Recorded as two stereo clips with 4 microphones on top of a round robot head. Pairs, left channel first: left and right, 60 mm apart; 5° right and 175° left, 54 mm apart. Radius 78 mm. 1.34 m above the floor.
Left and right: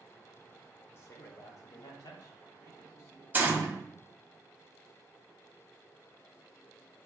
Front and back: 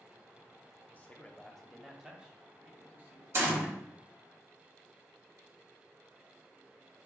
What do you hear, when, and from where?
0.9 s a man speaking: 45° left, 0.8 m; by 3.2 s 120° left, 1.4 m
3.3 s a gunshot: 150° right, 0.8 m